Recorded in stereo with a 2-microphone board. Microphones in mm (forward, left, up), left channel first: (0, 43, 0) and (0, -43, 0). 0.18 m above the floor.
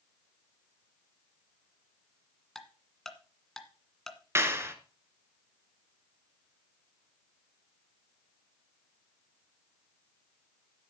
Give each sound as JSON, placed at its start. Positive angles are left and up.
{"t": 2.5, "sound": "ticking", "side_deg": 5, "distance_m": 1.7}
{"t": 4.3, "sound": "a clap", "side_deg": -30, "distance_m": 1.6}